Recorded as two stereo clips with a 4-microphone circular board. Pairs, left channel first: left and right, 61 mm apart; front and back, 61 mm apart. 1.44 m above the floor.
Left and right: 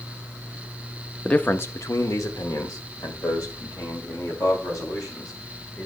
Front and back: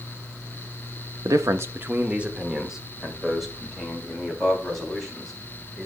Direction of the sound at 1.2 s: 165° left.